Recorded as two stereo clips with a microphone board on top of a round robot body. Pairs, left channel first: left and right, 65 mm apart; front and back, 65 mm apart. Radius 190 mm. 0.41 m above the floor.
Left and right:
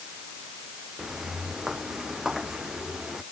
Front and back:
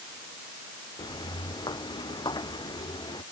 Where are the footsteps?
10° right.